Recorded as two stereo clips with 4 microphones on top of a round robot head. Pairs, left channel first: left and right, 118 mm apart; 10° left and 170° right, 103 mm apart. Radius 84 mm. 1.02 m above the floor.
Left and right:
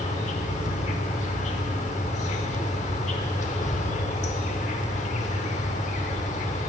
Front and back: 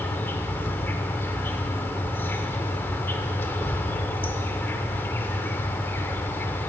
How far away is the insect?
About 0.9 m.